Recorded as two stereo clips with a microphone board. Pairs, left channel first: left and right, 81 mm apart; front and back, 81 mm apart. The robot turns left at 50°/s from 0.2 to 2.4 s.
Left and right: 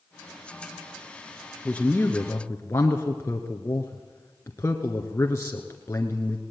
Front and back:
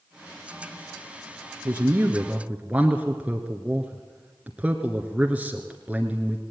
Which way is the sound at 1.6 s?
155° left.